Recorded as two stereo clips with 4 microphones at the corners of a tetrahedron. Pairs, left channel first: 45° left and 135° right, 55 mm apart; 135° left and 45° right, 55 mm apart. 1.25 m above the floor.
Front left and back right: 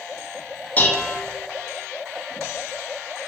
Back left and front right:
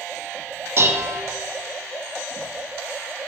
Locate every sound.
0.8 s dishes clattering: 10° right, 0.5 m